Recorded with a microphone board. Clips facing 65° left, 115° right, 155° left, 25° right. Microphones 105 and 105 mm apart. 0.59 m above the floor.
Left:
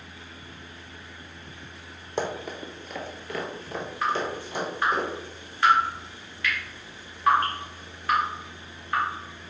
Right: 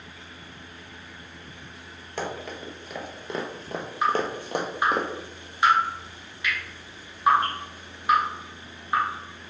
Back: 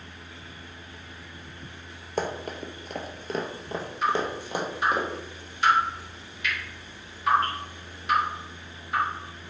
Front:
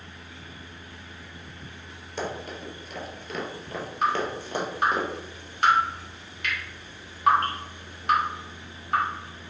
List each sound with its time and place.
2.2 s running footsteps: 130° left, 0.9 m; by 5.0 s 120° right, 1.3 m
4.0 s dripping: 45° right, 1.4 m